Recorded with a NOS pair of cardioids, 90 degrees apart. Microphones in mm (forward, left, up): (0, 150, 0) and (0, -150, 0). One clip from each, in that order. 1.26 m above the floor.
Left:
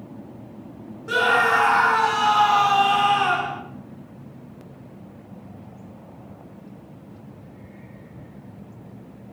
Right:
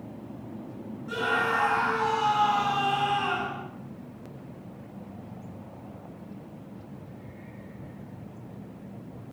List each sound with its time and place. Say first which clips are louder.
1.1 s a scream: left 8 dB; 70° left, 1.9 m